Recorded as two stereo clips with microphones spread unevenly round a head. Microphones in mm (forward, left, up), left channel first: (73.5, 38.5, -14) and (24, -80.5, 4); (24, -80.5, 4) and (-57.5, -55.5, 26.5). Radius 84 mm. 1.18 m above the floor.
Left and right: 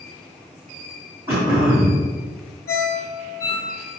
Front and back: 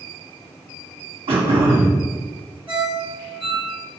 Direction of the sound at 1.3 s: 170° left.